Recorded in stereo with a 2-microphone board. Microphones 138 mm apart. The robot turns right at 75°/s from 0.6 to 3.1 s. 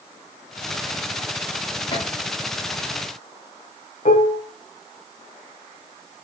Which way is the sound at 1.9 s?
25° left (ahead or behind).